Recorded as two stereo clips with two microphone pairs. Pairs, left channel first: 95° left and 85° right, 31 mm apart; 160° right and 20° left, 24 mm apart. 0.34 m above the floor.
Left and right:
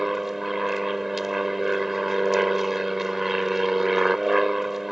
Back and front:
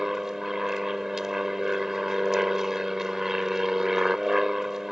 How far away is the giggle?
I don't hear a giggle.